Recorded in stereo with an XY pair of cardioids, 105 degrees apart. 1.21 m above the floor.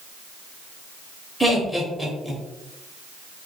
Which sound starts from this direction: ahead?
Laughter, at 1.4 s.